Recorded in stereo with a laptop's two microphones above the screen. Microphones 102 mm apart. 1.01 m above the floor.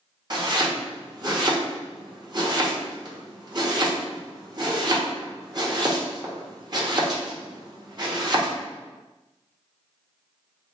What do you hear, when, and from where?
0.3 s chopping: 40° right (ahead or behind), 1.3 m